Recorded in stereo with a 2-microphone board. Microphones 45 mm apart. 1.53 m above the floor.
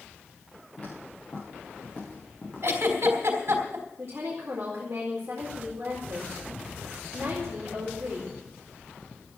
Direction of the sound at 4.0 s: 45° right (ahead or behind).